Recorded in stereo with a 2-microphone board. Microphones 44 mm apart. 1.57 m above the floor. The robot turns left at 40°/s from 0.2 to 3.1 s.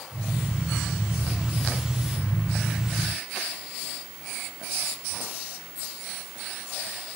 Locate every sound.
Only background noise.